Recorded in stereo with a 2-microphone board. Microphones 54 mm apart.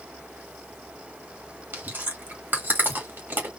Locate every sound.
1.7 s chewing: 35° right (ahead or behind), 2.5 m